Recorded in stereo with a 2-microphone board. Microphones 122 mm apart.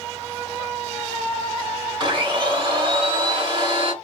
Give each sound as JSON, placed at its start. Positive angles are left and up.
{"t": 2.0, "sound": "a blender", "side_deg": -40, "distance_m": 1.8}